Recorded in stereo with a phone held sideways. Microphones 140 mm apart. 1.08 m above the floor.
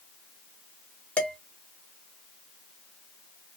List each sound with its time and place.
1.2 s dishes clattering: 10° left (ahead or behind), 1.1 m